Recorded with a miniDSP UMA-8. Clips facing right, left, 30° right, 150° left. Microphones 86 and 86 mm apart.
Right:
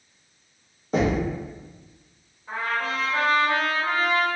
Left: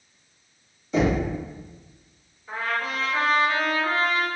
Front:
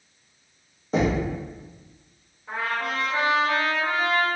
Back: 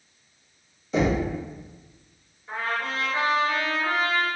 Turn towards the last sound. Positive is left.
turn(degrees=-45)